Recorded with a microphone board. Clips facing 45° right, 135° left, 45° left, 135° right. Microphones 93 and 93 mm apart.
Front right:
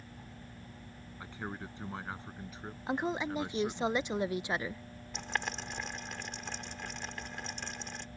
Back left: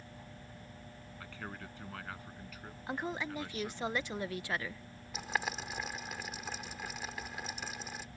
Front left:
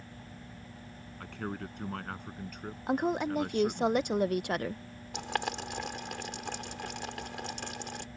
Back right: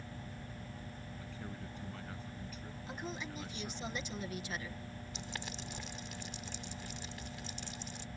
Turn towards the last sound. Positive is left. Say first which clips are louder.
# back left 1 dB, front left 14 dB
turn(degrees=50)